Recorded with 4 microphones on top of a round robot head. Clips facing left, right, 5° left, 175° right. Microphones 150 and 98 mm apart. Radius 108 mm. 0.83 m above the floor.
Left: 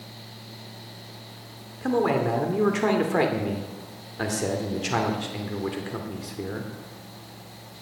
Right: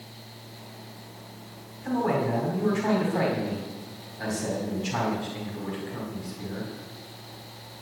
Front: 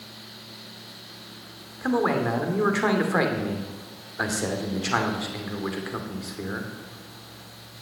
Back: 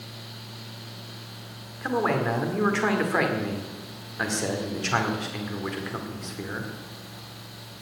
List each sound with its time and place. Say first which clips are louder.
1.8 s a man speaking: left 3 dB, front 2 dB; 90° left, 2 m